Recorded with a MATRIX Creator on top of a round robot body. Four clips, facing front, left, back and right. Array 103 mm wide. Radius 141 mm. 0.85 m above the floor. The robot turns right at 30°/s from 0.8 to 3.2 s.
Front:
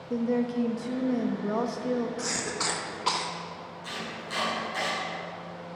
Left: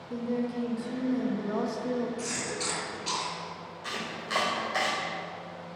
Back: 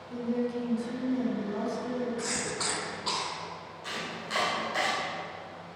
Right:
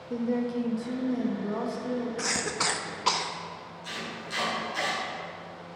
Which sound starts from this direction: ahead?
A woman speaking, at 0.1 s.